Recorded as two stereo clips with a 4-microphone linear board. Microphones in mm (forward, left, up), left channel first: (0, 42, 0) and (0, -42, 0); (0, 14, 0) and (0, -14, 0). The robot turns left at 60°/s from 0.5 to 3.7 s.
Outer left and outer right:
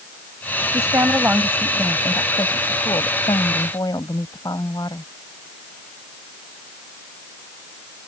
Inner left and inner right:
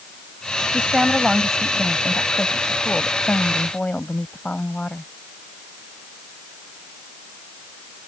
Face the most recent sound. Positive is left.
turn(degrees=55)